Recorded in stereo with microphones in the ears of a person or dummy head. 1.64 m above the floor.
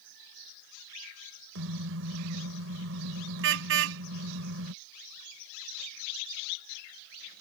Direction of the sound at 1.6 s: 75° right (ahead or behind).